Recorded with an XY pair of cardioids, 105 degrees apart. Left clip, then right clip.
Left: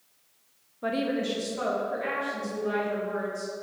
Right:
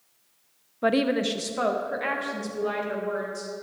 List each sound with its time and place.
0.8 s a woman speaking: 50° right, 0.7 m; by 3.5 s 55° right, 4.5 m